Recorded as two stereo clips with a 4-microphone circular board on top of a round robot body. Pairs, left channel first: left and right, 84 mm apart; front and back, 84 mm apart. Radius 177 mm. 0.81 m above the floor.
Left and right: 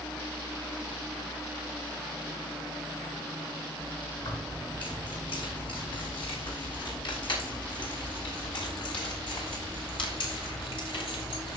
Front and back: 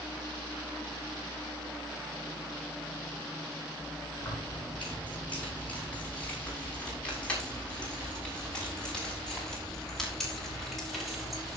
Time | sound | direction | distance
4.2 | keys jangling | 70° left | 8.5 m